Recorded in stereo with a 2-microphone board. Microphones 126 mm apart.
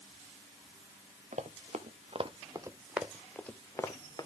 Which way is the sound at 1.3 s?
75° right (ahead or behind).